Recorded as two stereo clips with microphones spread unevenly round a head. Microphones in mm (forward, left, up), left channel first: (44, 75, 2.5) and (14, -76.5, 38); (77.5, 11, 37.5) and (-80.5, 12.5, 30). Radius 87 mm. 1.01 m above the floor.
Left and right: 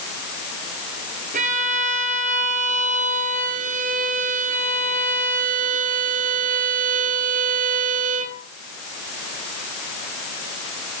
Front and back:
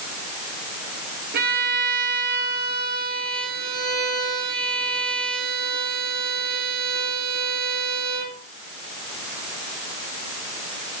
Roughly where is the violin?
Behind right.